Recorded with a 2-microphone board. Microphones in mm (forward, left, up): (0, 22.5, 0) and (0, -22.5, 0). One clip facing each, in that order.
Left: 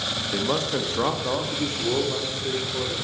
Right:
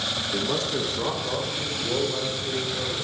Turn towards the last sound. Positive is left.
turn(degrees=75)  # may be behind; listen again after turning